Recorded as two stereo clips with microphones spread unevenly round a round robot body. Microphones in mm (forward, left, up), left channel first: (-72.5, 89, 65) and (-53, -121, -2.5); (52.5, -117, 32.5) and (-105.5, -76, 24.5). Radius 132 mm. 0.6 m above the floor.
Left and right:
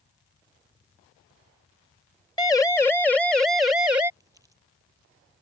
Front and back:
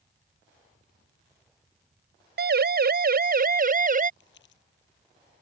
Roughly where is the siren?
Behind.